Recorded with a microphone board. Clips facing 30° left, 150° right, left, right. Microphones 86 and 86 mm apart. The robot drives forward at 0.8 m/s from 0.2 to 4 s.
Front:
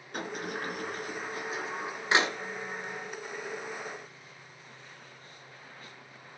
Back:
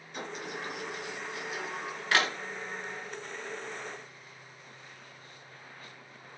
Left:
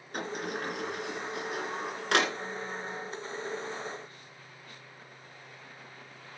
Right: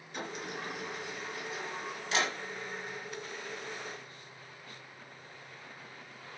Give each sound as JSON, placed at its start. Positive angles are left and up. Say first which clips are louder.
{"t": 0.1, "sound": "a sliding door", "louder": "front 3 dB, left 5 dB", "azimuth_deg": 55, "distance_m": 2.5}